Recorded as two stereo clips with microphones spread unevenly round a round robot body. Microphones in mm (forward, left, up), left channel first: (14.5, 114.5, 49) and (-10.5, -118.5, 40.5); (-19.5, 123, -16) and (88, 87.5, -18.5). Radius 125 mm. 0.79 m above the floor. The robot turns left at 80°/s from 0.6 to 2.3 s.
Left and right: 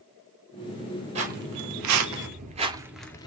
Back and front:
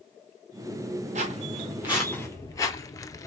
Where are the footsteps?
30° right, 1.9 m; by 3.3 s 140° left, 0.8 m.